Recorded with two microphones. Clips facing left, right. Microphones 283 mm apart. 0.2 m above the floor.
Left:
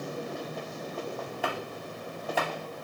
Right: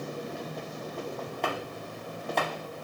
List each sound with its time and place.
1.4 s chopping: 5° left (ahead or behind), 0.8 m